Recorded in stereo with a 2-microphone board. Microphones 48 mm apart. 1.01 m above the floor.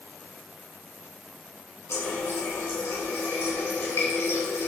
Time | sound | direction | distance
1.9 | a running tap | 75° left (ahead or behind) | 2 m